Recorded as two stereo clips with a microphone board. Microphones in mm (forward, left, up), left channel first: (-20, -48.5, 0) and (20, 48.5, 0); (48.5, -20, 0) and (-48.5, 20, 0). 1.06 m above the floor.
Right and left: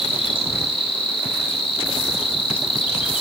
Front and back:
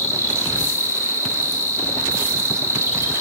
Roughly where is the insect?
Behind right.